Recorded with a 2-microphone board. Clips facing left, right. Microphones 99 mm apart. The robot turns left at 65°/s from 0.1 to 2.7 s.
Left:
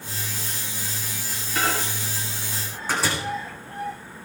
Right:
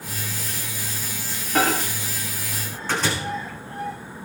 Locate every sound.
1.6 s a microwave: 65° right (ahead or behind), 5.5 m; by 3.1 s 10° left (ahead or behind), 5.5 m